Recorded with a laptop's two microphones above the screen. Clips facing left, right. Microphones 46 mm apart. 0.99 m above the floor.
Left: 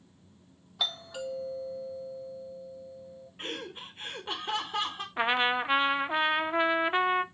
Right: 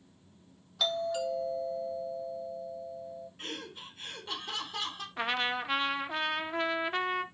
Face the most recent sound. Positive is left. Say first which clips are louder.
# left 5 dB
turn(degrees=20)  # may be behind; listen again after turning